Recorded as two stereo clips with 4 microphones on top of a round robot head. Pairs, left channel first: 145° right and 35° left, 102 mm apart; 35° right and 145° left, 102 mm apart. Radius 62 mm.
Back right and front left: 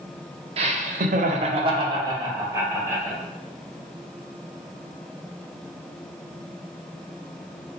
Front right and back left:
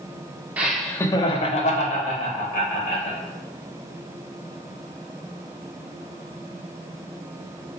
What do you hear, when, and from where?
0.6 s laughter: 70° left, 0.6 m; by 3.2 s 35° right, 1.6 m